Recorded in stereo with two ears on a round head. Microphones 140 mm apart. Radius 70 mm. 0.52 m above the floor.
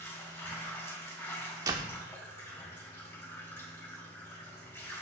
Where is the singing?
I don't hear singing.